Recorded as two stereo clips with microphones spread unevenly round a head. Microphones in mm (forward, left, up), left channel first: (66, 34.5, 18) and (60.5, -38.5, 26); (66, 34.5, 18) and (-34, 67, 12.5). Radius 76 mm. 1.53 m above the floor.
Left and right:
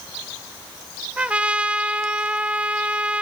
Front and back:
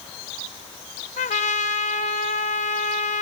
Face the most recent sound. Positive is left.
turn(degrees=-20)